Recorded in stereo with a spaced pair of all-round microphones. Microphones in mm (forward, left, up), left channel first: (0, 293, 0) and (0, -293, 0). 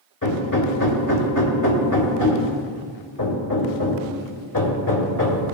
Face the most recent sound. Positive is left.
turn(degrees=30)  # may be behind; listen again after turning